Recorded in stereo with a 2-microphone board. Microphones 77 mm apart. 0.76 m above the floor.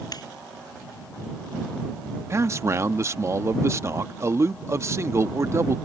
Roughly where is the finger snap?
Left.